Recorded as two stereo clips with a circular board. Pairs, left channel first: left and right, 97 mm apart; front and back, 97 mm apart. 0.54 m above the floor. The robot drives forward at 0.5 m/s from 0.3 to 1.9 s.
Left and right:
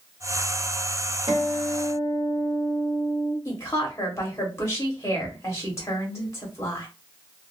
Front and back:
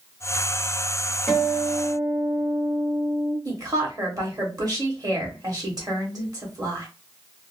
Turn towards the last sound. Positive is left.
turn(degrees=145)